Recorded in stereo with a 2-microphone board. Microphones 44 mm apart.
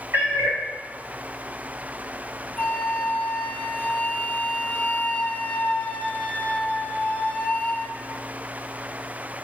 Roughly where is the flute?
Left.